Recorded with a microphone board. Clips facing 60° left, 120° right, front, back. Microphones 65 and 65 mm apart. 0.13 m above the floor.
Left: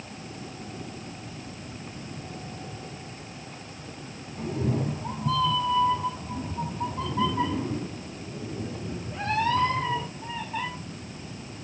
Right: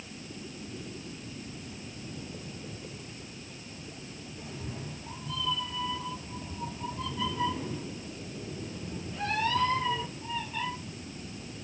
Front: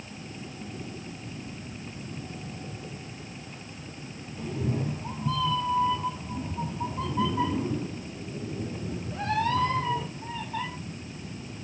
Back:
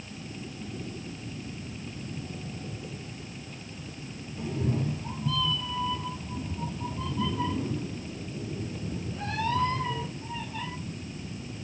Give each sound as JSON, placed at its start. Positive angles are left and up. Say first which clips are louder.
{"t": 4.4, "sound": "a cat meowing", "louder": "left 14 dB, even", "azimuth_deg": 95, "distance_m": 1.1}